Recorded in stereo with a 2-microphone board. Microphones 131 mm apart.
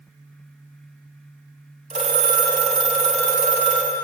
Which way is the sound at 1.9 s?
60° right (ahead or behind).